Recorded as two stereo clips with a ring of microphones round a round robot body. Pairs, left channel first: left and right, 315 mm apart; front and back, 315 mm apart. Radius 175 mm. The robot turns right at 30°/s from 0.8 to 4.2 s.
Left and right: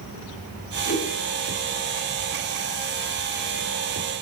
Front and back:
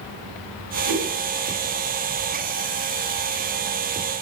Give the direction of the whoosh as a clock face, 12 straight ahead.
7 o'clock.